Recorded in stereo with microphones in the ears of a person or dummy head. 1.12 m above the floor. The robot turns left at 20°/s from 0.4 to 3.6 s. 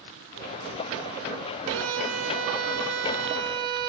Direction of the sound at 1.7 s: 90° right.